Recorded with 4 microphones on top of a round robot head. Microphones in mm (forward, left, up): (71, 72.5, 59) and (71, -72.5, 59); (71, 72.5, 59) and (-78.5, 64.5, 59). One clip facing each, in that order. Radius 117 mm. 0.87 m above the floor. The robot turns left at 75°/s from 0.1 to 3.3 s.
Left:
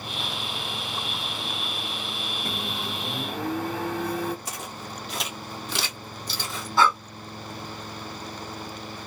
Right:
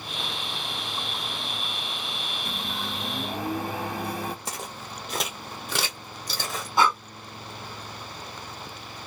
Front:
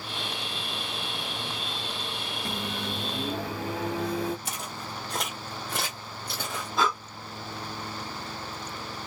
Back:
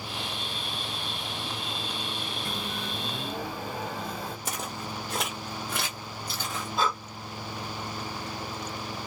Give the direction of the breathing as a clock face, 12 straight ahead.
1 o'clock.